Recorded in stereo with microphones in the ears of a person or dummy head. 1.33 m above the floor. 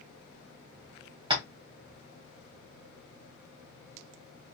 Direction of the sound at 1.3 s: 25° right (ahead or behind).